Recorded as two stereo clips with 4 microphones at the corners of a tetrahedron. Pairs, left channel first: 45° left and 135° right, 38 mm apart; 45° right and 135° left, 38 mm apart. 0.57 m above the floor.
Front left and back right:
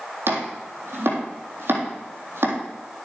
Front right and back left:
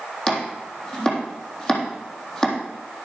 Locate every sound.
0.3 s chopping: 115° right, 3.5 m